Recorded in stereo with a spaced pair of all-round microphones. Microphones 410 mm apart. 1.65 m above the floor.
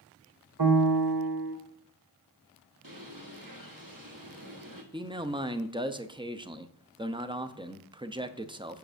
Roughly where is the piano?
Right.